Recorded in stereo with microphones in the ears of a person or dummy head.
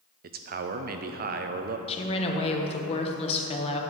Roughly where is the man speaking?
Right.